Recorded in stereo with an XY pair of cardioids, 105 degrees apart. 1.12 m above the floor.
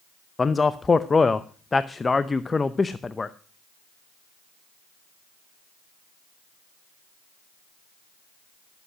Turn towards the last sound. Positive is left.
turn(degrees=25)